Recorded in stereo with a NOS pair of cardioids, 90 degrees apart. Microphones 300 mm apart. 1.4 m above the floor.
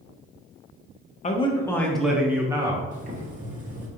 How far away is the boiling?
About 1.1 m.